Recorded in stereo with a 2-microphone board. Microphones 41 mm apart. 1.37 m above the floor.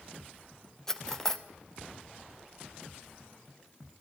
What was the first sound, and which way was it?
Cutlery clinking, 10° left (ahead or behind).